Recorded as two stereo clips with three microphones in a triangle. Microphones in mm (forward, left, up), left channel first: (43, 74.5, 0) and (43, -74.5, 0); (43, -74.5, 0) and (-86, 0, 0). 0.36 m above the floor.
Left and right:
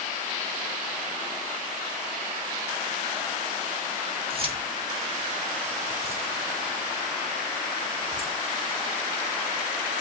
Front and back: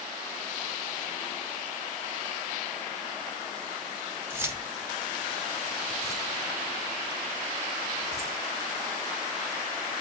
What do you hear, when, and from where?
4.3 s keys jangling: 135° right, 1.9 m